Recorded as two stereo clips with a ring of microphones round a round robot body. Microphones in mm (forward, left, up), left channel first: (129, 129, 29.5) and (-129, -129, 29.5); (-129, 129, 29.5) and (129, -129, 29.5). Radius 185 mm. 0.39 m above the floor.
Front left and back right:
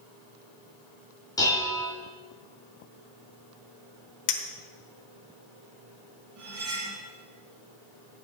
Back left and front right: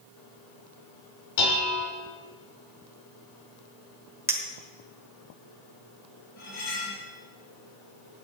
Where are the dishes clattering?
125° left, 3.5 m.